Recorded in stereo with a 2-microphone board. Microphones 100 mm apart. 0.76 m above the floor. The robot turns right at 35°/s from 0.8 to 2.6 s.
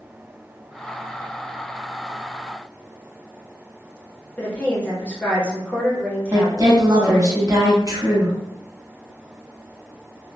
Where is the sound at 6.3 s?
35° right (ahead or behind), 0.9 m.